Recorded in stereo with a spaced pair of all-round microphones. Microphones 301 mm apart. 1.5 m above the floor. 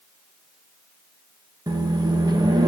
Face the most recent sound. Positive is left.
turn(degrees=-15)  # may be behind; listen again after turning